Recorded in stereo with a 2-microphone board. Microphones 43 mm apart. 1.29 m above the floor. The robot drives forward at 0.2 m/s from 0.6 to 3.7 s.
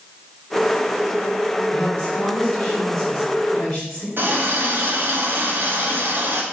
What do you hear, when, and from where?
1.7 s a woman speaking: 20° left (ahead or behind), 1.5 m; by 4.1 s 15° left (ahead or behind), 1.9 m
4.2 s a running tap: 55° right (ahead or behind), 0.8 m